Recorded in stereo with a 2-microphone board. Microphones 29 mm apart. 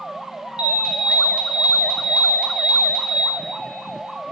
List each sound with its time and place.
0.6 s an alarm: 45° right (ahead or behind), 1.6 m